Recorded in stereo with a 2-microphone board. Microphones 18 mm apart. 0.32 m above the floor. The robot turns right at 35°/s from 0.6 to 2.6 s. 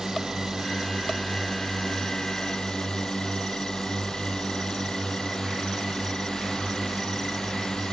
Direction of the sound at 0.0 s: 25° right.